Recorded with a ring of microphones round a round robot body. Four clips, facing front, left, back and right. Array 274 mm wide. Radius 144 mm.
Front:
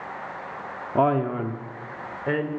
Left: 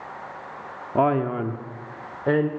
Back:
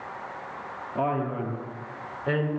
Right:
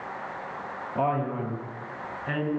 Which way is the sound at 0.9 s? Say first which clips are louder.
Left 6 dB, front 6 dB; 50° left.